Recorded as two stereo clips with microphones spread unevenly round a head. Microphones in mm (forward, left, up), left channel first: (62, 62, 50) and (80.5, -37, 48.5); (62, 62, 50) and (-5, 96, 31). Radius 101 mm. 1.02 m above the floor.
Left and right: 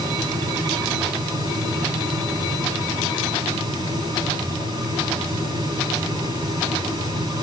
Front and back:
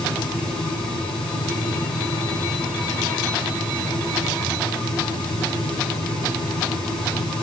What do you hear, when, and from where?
0.0 s a fan: 30° right, 8.5 m